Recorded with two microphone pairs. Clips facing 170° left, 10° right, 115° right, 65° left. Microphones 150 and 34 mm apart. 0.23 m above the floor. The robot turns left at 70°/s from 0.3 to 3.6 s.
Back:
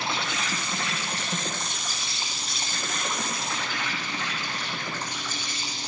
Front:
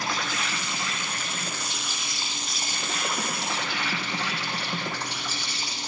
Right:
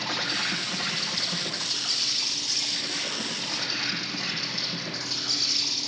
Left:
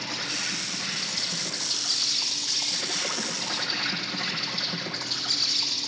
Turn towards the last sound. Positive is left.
turn(degrees=5)